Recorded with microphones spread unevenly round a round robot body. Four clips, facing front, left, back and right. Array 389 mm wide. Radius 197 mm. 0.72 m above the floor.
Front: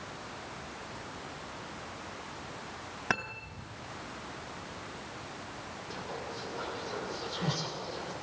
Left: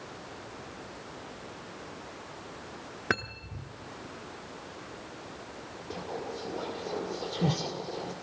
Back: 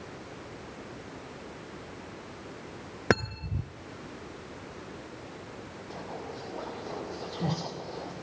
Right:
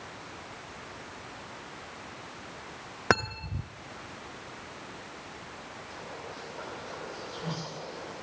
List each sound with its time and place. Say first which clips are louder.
3.1 s cutlery clinking: right 6 dB, back 8 dB; 160° right, 0.8 m
5.9 s whispering: left 7 dB, back 1 dB; 105° left, 2.5 m